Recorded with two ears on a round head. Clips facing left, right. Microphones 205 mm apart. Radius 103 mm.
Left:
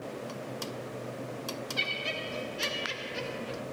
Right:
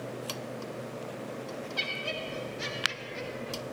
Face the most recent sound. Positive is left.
turn(degrees=55)  # may be behind; listen again after turning